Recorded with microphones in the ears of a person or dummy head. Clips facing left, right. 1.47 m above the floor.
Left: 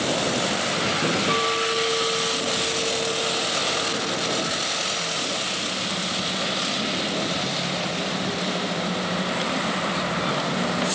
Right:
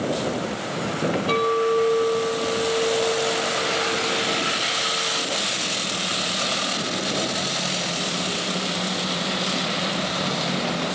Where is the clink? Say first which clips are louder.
Right 5 dB; 45° left (ahead or behind), 2 m.